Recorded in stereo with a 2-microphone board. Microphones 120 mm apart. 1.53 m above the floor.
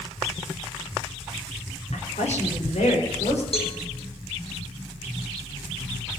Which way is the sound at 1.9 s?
70° left (ahead or behind).